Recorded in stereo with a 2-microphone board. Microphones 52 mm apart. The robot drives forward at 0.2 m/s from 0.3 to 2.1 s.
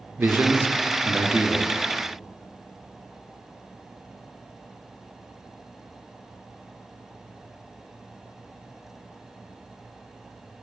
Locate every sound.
0.2 s a man speaking: 45° right (ahead or behind), 0.5 m; by 1.7 s 30° right (ahead or behind), 0.7 m